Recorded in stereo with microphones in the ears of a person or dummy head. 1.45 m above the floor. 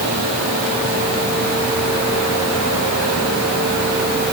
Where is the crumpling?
No crumpling in this recording.